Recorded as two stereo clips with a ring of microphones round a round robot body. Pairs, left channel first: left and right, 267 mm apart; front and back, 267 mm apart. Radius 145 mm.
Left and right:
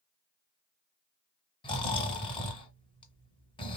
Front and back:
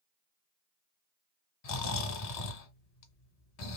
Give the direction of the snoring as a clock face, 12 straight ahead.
11 o'clock.